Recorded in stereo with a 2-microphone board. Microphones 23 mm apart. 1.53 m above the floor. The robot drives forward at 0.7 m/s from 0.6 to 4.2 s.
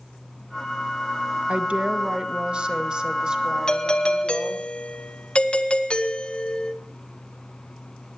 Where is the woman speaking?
60° right (ahead or behind), 1.5 m; by 4.7 s 30° right (ahead or behind), 3 m.